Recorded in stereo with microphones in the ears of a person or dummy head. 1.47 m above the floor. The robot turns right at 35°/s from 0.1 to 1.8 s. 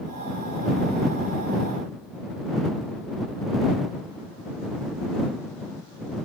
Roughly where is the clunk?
I don't hear a clunk.